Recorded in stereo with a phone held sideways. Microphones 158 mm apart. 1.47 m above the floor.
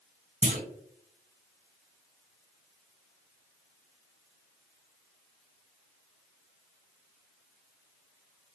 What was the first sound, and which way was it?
A clunk, 50° right (ahead or behind).